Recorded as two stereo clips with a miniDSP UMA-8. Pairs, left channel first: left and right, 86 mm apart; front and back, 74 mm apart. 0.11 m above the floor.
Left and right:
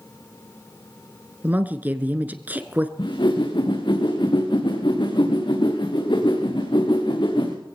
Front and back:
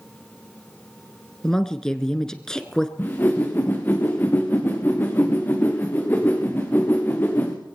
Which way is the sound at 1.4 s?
65° right.